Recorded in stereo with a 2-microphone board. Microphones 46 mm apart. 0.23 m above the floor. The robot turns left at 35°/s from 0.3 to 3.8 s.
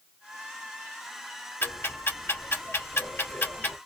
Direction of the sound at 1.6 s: 55° left (ahead or behind).